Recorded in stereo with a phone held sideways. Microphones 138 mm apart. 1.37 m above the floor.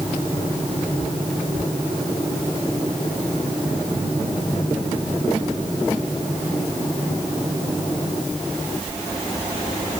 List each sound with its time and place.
Only background noise.